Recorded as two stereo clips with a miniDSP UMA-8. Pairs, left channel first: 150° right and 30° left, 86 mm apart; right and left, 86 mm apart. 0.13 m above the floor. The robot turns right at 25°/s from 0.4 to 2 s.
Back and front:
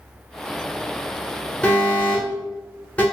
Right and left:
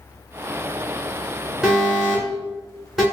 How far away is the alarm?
About 1.4 m.